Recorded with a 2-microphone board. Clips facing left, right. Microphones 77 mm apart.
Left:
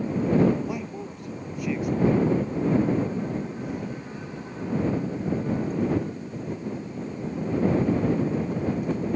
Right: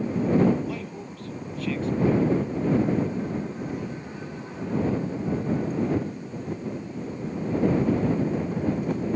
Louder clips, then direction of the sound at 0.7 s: Left 1 dB; 15° left (ahead or behind).